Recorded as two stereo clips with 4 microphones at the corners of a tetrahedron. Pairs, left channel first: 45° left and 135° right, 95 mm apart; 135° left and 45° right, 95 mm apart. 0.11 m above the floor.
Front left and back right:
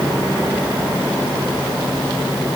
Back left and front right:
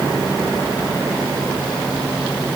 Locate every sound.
Only background noise.